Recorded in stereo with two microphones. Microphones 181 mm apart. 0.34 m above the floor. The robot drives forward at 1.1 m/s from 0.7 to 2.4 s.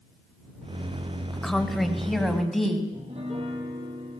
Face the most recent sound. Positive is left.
turn(degrees=-35)  # may be behind; listen again after turning